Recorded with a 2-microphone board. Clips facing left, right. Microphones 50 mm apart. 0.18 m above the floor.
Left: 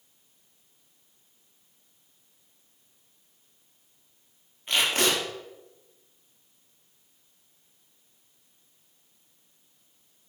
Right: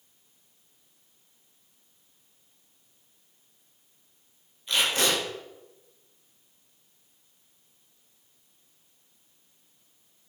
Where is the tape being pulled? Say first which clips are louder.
Left 1 dB; 35° left (ahead or behind), 3.5 m.